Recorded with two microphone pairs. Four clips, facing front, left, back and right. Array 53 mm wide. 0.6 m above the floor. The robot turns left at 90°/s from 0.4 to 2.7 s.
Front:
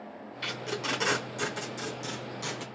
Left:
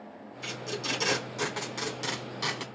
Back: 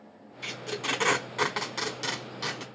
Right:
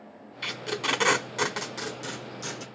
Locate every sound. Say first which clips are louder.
0.4 s tape being pulled: right 5 dB, even; 55° right, 1.1 m; by 2.6 s 105° left, 1.1 m